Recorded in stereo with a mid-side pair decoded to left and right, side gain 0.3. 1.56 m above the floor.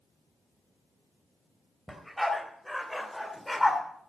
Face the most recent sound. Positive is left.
turn(degrees=15)